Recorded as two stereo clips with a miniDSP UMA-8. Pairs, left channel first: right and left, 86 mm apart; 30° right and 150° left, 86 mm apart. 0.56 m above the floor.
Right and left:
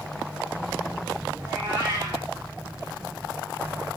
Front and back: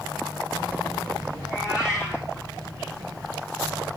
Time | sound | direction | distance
1.4 | a cat meowing | 25° left | 9 m